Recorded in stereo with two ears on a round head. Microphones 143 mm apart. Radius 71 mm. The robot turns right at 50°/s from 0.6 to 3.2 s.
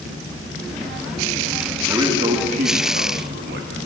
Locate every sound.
1.9 s a man speaking: 160° right, 1.6 m; by 3.9 s 95° right, 1.6 m